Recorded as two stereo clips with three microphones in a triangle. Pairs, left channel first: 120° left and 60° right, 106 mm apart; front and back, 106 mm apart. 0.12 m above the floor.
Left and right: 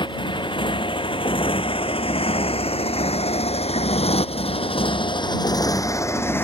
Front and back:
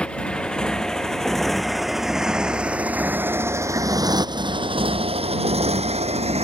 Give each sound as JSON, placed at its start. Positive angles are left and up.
{"t": 0.0, "sound": "a motorcycle", "azimuth_deg": 80}